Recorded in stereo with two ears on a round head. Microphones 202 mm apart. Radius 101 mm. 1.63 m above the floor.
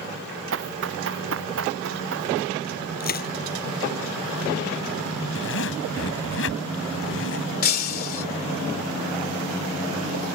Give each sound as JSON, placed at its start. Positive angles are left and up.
{"t": 0.5, "sound": "running footsteps", "side_deg": -60}
{"t": 3.0, "sound": "crushing", "side_deg": 45}
{"t": 5.3, "sound": "a zipper", "side_deg": 60}
{"t": 7.6, "sound": "breaking glass", "side_deg": 40}